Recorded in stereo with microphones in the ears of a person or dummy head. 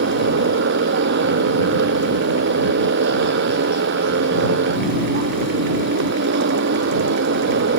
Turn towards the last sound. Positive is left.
turn(degrees=-60)  # may be behind; listen again after turning